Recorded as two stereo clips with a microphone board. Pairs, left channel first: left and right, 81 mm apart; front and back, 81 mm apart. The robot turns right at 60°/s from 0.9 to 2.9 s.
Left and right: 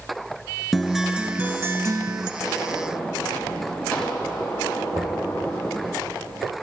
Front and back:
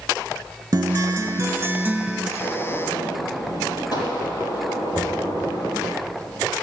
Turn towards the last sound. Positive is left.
turn(degrees=-95)